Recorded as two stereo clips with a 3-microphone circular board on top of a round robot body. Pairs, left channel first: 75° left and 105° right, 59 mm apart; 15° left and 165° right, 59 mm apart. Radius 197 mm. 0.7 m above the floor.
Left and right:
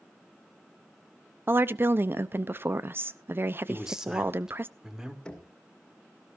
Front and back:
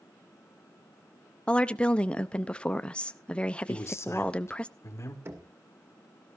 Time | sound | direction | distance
1.5 | a woman speaking | 55° right | 0.8 m
3.7 | a man speaking | 25° right | 2.5 m
5.2 | knocking | 150° left | 2 m